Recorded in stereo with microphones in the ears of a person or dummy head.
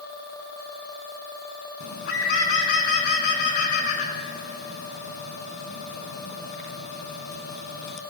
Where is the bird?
60° left (ahead or behind), 3 m.